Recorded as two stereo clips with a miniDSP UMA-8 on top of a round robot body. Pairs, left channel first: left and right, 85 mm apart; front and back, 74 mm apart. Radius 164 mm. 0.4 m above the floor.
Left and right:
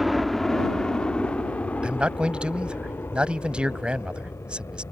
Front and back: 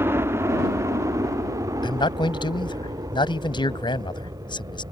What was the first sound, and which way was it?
A helicopter, straight behind.